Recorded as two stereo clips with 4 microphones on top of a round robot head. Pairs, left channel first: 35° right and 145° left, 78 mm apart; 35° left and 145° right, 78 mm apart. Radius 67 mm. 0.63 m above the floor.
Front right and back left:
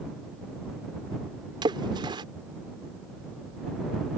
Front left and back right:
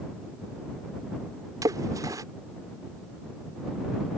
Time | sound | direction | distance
1.6 | a splash | 170° left | ?